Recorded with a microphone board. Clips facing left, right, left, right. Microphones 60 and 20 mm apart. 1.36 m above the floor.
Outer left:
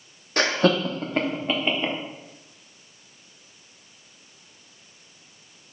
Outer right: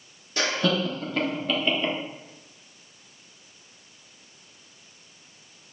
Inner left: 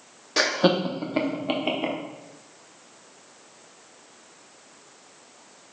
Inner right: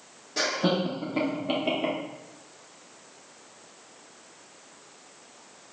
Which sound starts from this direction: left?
Laughter, at 0.4 s.